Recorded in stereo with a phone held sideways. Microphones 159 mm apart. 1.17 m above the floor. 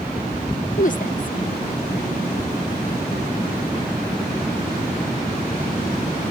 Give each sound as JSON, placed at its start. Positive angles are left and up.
{"t": 0.8, "sound": "a woman speaking", "side_deg": 55}